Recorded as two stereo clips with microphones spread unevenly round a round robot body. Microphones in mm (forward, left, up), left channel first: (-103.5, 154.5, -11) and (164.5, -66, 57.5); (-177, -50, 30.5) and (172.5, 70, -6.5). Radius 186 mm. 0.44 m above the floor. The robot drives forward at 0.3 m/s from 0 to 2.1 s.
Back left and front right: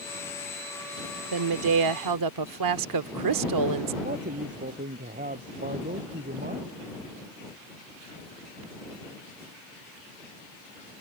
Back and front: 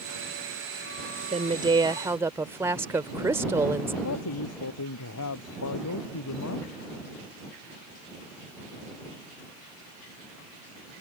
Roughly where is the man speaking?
Right.